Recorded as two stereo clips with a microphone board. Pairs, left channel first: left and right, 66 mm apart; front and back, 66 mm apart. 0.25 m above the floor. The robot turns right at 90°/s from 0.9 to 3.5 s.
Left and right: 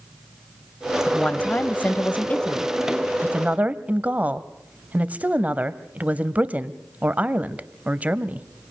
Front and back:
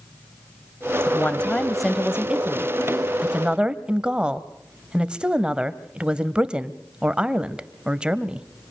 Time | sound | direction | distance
1.1 | a woman speaking | 20° left | 1.0 m